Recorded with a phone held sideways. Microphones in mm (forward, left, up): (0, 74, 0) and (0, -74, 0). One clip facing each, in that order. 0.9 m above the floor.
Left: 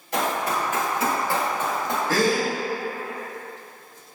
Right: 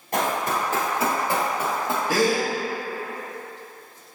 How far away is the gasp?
About 1.0 m.